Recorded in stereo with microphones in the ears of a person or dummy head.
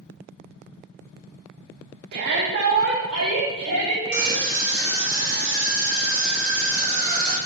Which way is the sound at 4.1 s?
90° right.